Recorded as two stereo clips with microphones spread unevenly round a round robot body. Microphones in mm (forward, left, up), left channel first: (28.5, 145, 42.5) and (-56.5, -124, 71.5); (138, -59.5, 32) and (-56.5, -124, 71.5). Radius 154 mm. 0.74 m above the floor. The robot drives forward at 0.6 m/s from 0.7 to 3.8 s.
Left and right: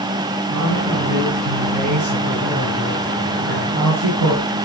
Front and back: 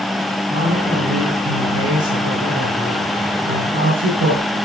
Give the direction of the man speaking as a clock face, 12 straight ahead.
5 o'clock.